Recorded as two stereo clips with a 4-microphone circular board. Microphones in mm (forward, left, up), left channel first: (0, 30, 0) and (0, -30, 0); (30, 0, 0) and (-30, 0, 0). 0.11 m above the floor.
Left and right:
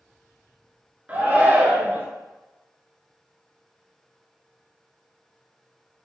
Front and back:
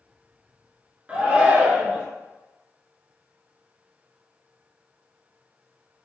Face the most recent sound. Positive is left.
turn(degrees=-125)